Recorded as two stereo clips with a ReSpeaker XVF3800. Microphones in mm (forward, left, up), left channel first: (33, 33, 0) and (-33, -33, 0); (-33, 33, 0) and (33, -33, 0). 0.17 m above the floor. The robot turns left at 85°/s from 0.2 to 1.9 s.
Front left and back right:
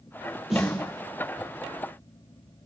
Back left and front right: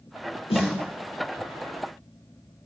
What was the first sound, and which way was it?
A snare drum, 140° left.